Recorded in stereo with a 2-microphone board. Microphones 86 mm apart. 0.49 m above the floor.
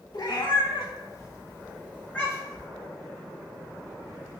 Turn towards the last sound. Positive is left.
turn(degrees=10)  # may be behind; listen again after turning